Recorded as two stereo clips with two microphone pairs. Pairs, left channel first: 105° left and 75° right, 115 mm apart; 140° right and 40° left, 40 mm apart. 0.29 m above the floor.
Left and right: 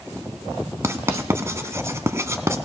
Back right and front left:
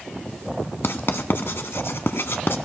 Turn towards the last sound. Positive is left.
turn(degrees=-140)